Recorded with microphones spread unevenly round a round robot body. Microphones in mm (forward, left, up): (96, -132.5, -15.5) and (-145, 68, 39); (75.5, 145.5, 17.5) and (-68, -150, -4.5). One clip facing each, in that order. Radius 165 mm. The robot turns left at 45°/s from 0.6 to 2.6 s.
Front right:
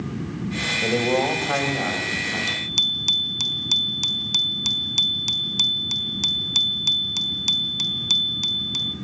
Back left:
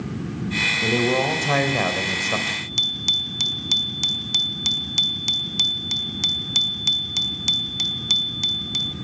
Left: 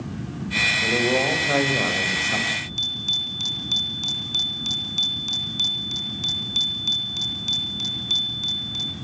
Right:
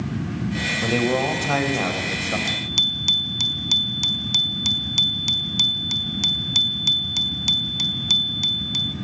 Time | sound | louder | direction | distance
0.8 | a man speaking | even, right 1 dB | 155° right | 4 m
2.5 | a bicycle bell | front right 1 dB, right 4 dB | 115° right | 4.5 m